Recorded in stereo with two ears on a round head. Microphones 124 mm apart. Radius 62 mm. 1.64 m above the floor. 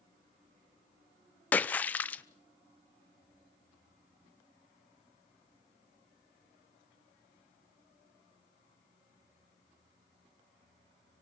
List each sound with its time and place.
1.5 s a splash: 10° left (ahead or behind), 0.7 m